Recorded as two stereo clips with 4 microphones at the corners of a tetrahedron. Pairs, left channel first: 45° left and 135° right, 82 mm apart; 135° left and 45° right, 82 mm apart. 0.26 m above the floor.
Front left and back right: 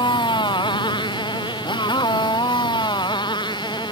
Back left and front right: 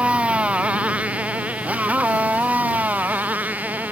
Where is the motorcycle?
30° left; by 3.9 s 25° left.